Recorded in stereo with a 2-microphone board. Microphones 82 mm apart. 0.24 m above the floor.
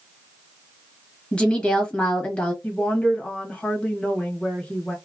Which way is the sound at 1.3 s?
10° left (ahead or behind).